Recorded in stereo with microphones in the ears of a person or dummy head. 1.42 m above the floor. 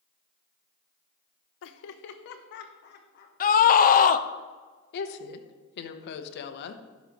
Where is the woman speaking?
65° left (ahead or behind), 1.0 m.